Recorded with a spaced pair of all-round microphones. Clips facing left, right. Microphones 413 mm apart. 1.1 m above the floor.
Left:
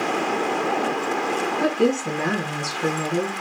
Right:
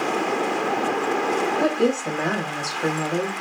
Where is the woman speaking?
20° left (ahead or behind), 1.5 m.